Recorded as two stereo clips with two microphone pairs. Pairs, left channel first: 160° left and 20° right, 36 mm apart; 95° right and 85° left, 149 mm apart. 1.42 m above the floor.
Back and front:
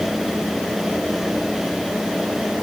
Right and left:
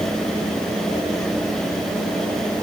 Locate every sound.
Only background noise.